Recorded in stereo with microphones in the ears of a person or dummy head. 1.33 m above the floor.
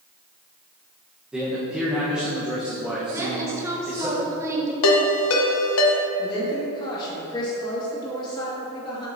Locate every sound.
1.3 s a man speaking: 5° right (ahead or behind), 0.9 m
3.1 s a woman speaking: 15° right (ahead or behind), 1.4 m
4.8 s a ringtone: 75° left (ahead or behind), 1.1 m
6.2 s a woman speaking: 25° left (ahead or behind), 1.8 m